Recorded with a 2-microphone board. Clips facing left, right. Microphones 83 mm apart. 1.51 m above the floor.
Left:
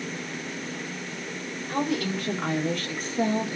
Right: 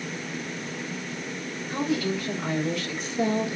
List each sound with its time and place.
1.7 s a woman speaking: 75° left (ahead or behind), 1.3 m; by 3.6 s 30° left (ahead or behind), 0.8 m